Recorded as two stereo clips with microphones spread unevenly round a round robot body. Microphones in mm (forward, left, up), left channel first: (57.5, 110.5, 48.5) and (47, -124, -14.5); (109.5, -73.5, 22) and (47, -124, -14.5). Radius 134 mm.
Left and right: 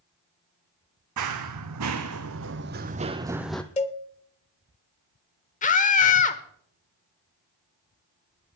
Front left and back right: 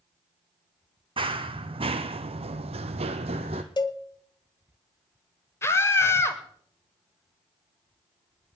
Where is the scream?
120° left, 0.9 m.